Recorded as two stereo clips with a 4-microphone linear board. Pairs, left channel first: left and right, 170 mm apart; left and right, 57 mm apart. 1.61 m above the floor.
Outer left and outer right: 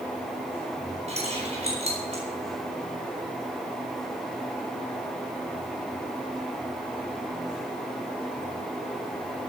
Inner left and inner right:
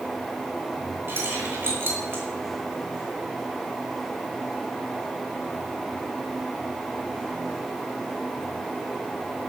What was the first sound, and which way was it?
Keys jangling, 40° right (ahead or behind).